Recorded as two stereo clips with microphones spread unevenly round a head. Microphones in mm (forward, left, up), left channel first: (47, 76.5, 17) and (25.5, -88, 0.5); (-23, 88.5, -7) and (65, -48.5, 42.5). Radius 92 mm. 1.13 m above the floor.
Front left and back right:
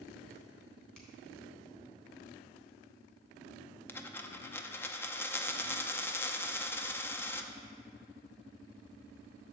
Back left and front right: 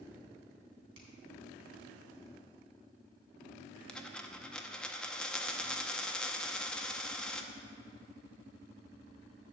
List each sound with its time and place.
0.9 s a finger snap: 5° right, 3.5 m
3.9 s a dropped coin: 20° left, 0.6 m